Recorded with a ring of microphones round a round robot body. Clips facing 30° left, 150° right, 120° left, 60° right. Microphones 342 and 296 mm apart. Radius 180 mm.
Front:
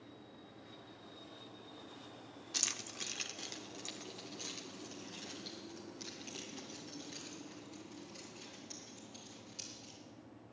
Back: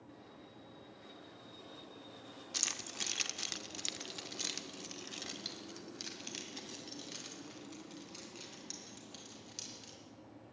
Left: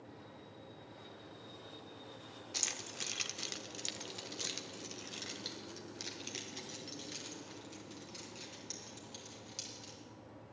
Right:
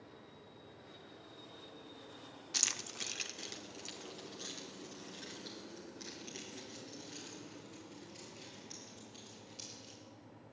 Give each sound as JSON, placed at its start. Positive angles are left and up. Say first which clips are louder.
{"t": 2.5, "sound": "keys jangling", "louder": "even, left 1 dB", "azimuth_deg": -50, "distance_m": 0.7}